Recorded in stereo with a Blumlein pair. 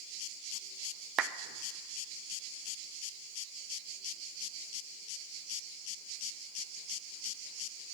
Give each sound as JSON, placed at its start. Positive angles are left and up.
{"t": 1.2, "sound": "a clap", "azimuth_deg": -30, "distance_m": 0.6}